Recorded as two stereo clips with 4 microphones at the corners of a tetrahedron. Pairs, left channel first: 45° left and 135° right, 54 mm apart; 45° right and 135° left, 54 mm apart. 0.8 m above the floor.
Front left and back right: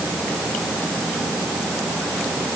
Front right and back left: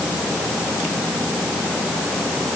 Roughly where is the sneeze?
No sneeze in this recording.